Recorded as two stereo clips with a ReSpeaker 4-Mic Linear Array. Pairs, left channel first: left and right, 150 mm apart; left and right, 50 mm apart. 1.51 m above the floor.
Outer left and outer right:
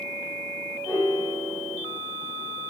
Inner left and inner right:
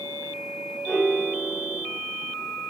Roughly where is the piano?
Centre.